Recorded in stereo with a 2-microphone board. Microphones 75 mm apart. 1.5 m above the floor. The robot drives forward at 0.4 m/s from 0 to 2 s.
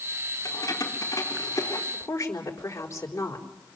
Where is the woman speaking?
35° left (ahead or behind), 4 m.